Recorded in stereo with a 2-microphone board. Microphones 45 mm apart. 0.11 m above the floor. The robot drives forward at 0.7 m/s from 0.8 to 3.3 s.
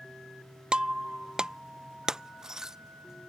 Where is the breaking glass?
20° right (ahead or behind); by 2.8 s 10° right (ahead or behind).